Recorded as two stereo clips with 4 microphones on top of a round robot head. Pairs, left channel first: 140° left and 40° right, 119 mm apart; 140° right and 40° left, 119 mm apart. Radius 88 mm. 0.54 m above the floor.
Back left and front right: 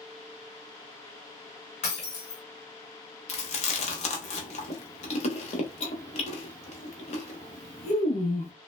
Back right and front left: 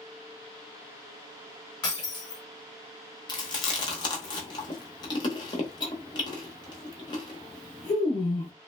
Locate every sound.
1.8 s breaking glass: 165° left, 1.3 m
3.3 s chewing: 170° left, 0.7 m